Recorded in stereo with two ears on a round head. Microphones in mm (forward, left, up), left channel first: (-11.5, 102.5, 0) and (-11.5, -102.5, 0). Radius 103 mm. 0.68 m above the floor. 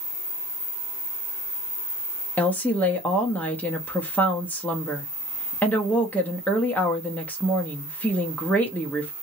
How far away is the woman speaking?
About 0.7 m.